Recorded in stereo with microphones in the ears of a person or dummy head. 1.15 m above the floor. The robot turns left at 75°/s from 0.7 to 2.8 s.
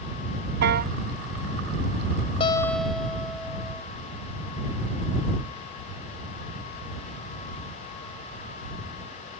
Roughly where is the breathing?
I don't hear breathing.